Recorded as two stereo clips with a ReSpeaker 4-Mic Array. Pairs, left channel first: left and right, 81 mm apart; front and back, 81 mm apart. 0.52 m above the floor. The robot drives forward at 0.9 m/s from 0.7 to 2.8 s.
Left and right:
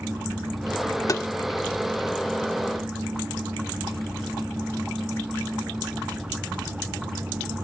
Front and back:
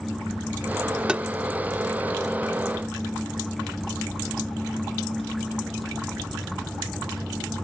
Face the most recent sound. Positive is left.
turn(degrees=160)